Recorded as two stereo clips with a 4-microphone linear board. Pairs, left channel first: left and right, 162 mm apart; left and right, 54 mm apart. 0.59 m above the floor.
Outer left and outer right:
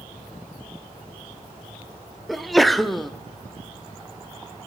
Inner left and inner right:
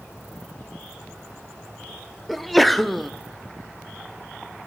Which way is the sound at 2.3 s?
Centre (ahead or behind).